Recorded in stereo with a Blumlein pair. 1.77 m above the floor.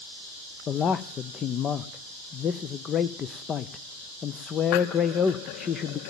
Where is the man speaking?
25° left, 0.6 m.